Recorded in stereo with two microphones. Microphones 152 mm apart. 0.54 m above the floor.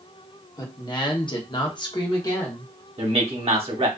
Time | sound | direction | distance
0.6 | a woman speaking | 25° left (ahead or behind) | 0.8 m
3.0 | a man speaking | 40° right (ahead or behind) | 1.0 m